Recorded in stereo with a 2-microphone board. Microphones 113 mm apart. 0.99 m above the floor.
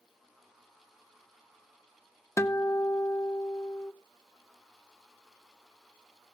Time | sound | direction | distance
2.4 | a guitar | 25° left (ahead or behind) | 0.6 m